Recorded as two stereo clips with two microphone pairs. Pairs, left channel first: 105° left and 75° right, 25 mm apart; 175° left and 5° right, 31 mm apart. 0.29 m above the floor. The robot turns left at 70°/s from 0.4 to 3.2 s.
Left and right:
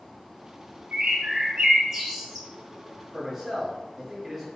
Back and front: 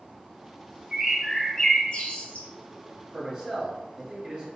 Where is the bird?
70° right, 1.1 m; by 2.5 s straight behind, 1.1 m.